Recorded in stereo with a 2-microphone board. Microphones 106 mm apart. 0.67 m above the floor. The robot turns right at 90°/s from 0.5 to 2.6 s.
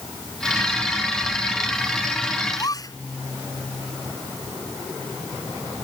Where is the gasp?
25° left (ahead or behind); by 3.0 s 35° left (ahead or behind).